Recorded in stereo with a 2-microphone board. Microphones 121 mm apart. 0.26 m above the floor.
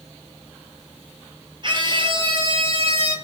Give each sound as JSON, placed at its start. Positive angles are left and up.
{"t": 1.6, "sound": "a scream", "side_deg": -40, "distance_m": 5.0}